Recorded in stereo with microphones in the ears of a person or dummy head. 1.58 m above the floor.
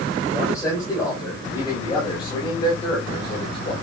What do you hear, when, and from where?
0.3 s a man speaking: 15° left (ahead or behind), 5.5 m; by 3.7 s 35° left (ahead or behind), 5 m